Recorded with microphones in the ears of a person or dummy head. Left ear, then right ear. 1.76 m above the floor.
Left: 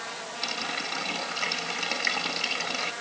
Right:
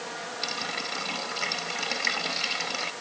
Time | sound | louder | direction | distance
0.4 | a running tap | left 1 dB | 5° left (ahead or behind) | ?